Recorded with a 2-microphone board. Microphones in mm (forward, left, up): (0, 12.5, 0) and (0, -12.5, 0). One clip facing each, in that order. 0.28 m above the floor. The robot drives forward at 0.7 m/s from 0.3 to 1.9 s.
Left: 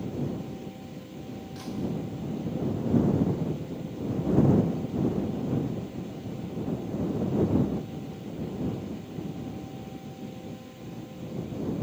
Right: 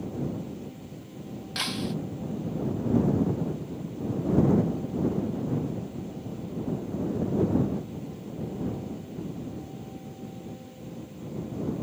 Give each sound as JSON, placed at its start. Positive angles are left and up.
{"t": 1.6, "sound": "breaking glass", "side_deg": -80}